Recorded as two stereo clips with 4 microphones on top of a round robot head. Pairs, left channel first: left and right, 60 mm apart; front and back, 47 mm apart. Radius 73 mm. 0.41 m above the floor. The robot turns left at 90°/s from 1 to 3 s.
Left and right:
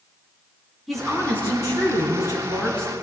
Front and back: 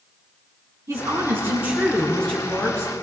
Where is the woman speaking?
Straight behind, 5 m; by 2.9 s 5° left, 5 m.